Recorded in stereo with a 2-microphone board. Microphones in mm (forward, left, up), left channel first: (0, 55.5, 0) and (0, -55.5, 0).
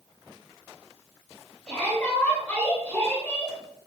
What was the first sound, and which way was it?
A shout, 10° left (ahead or behind).